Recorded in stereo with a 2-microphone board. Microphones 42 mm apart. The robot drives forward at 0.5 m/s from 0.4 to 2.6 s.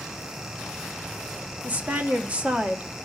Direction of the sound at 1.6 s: 40° right (ahead or behind).